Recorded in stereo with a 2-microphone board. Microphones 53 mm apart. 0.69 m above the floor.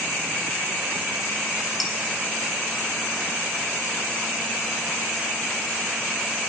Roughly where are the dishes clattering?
Centre.